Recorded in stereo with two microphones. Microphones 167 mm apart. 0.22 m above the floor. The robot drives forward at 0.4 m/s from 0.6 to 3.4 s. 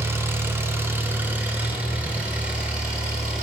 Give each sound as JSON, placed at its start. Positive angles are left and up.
{"t": 0.0, "sound": "an engine running", "side_deg": -15, "distance_m": 0.8}